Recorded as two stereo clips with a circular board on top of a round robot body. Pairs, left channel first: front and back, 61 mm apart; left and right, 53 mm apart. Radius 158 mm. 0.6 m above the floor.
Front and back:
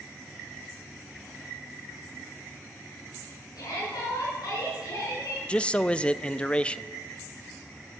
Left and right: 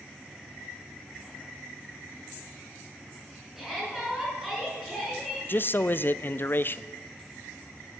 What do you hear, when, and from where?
3.6 s a shout: 5° right, 8 m
5.5 s a man speaking: 65° left, 0.7 m